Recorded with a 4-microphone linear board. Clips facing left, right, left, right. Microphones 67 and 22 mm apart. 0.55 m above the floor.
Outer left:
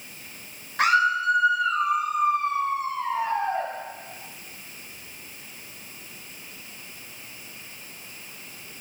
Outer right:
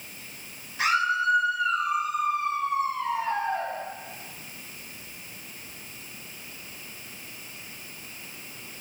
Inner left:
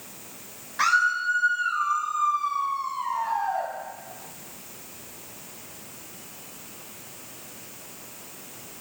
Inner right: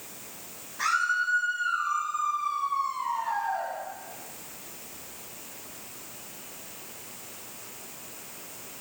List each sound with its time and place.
0.8 s a scream: 55° left (ahead or behind), 2.5 m; by 3.7 s 30° left (ahead or behind), 3.5 m